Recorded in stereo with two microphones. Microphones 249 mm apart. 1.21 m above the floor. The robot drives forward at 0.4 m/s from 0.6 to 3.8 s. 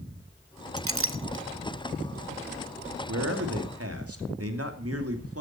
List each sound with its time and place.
0.8 s a clink: 60° right (ahead or behind), 0.7 m; by 1.4 s 45° right (ahead or behind), 0.9 m
3.1 s a man speaking: 70° right (ahead or behind), 2 m; by 5.4 s 65° right (ahead or behind), 2.5 m